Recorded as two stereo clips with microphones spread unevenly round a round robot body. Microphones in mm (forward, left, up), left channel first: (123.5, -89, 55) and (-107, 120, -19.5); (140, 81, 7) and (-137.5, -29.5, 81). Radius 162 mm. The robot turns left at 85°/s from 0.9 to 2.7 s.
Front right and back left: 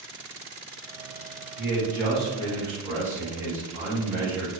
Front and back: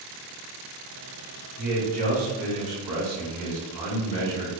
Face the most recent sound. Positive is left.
turn(degrees=-150)